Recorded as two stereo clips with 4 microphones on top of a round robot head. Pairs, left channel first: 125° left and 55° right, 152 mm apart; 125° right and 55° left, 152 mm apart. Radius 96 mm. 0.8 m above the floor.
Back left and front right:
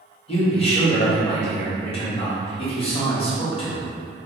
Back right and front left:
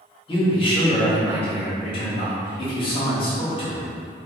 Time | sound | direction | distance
0.3 | a man speaking | straight behind | 1.4 m